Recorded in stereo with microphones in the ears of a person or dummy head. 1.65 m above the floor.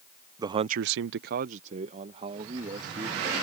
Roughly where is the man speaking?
Centre.